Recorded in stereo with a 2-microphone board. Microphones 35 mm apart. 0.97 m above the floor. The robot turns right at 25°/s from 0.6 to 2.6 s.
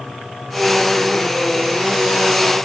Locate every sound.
Only background noise.